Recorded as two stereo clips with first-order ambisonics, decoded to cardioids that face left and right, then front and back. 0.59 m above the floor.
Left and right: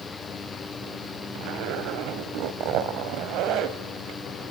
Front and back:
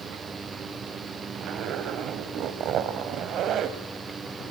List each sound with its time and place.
1.4 s a zipper: 130° right, 1.5 m